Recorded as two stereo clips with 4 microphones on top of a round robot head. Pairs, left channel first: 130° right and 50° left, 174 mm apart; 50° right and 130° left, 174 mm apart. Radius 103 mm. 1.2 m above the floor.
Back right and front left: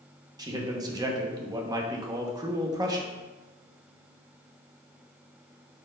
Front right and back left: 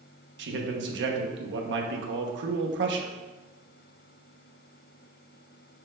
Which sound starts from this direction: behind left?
A man speaking, at 0.4 s.